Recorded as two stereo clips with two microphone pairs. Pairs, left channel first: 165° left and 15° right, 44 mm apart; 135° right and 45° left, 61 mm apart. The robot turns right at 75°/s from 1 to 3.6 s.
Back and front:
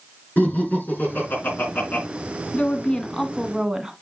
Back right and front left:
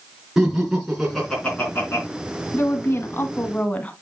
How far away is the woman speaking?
About 1.3 m.